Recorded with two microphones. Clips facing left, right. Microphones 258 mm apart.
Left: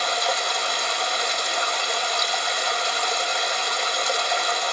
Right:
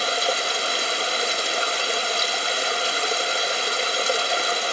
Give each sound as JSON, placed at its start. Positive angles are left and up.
{"t": 0.0, "sound": "running water", "side_deg": -35, "distance_m": 2.0}